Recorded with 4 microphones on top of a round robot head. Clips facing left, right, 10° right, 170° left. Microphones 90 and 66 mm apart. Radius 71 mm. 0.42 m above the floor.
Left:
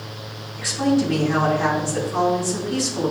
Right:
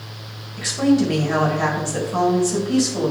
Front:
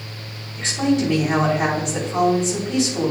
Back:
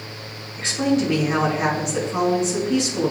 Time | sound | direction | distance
0.6 | a woman speaking | 75° right | 2.5 m